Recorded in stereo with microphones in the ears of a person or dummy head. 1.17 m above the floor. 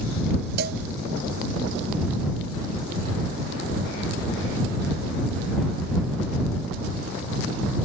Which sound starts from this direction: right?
A cowbell, at 0.6 s.